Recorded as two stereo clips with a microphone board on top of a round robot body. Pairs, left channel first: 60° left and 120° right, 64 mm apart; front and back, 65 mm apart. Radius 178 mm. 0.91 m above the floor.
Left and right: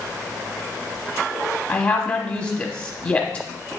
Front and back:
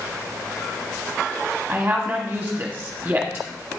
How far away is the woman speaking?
About 1.0 m.